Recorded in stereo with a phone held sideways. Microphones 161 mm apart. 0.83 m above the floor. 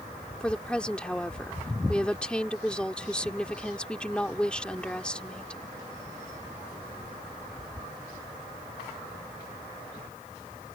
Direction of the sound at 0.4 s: 5° left (ahead or behind).